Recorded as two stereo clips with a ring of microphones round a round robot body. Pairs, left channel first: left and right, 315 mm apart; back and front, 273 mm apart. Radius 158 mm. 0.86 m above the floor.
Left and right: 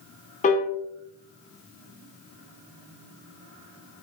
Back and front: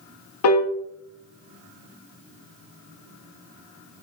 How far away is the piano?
About 1.0 m.